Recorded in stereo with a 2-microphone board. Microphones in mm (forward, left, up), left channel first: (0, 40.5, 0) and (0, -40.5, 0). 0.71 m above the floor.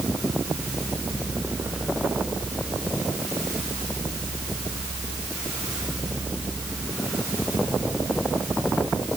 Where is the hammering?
I don't hear hammering.